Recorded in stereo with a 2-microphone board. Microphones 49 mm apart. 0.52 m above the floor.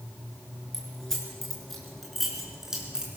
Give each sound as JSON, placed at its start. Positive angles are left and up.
{"t": 0.7, "sound": "keys jangling", "side_deg": 10, "distance_m": 5.0}